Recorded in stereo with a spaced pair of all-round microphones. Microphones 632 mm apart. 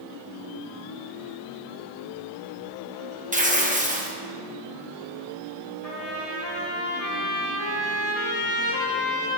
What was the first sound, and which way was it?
Tearing paper, 10° right (ahead or behind).